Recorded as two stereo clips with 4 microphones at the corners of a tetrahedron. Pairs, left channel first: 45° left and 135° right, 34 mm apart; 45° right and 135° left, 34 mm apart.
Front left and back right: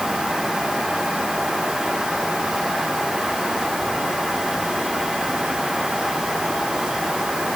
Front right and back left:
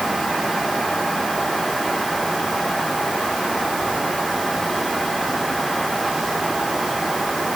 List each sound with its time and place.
Only background noise.